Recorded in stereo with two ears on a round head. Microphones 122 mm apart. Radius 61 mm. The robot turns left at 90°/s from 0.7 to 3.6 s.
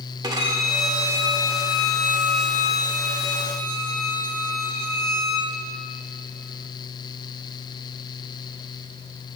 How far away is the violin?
About 1.4 m.